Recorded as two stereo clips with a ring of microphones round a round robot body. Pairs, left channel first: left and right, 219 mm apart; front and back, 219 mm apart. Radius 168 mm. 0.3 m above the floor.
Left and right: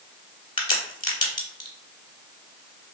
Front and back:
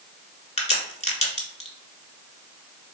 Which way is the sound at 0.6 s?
35° left.